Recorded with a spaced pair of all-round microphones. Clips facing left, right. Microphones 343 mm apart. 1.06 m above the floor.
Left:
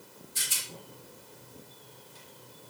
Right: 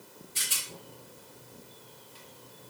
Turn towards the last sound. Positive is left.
turn(degrees=-70)  # may be behind; listen again after turning